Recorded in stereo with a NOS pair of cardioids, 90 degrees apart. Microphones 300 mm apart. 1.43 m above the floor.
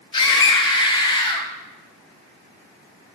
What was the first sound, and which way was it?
A scream, 15° left.